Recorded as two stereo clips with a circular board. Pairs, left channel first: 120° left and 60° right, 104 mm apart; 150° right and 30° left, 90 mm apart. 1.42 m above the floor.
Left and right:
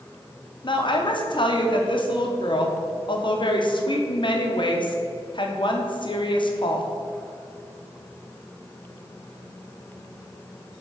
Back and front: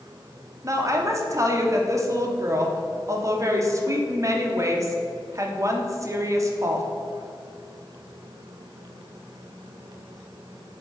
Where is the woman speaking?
80° left, 0.9 m.